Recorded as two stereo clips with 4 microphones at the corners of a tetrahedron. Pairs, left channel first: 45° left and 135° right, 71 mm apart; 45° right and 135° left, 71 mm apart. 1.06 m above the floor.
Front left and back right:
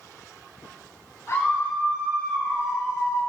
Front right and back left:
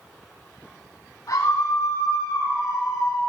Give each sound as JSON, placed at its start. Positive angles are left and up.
{"t": 1.3, "sound": "a scream", "azimuth_deg": -5, "distance_m": 8.5}